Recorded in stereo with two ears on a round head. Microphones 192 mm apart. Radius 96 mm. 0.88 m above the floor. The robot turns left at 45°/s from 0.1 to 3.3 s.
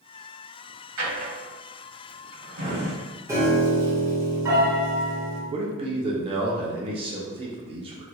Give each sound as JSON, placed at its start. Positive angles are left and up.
{"t": 1.0, "sound": "a drawer", "side_deg": -85, "distance_m": 1.7}
{"t": 3.3, "sound": "a piano", "side_deg": -15, "distance_m": 1.2}
{"t": 5.5, "sound": "a man speaking", "side_deg": -25, "distance_m": 0.5}